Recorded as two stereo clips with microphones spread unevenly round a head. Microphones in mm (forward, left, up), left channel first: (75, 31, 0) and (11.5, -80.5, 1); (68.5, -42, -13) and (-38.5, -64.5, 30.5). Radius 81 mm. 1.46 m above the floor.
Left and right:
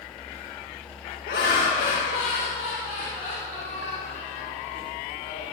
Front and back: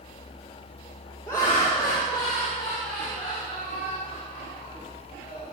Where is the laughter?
85° left, 2 m; by 5.5 s 55° left, 6.5 m.